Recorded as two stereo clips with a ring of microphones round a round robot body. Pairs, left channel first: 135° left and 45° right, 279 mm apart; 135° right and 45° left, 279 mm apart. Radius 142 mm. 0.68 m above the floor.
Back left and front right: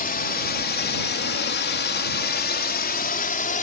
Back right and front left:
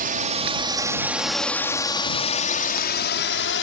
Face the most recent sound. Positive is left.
turn(degrees=-170)